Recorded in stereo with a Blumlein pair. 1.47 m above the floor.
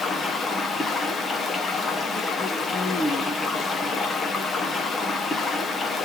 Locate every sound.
0.0 s running water: 15° left, 0.8 m